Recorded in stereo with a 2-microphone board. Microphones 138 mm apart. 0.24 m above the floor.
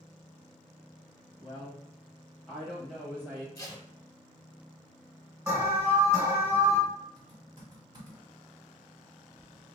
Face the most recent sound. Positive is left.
turn(degrees=-35)  # may be behind; listen again after turning